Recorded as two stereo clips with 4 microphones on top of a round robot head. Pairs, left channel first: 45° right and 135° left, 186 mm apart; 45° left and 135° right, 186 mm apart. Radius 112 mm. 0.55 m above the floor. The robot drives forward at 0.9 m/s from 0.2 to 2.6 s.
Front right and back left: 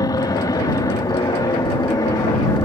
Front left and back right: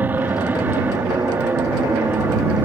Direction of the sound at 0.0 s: 70° right.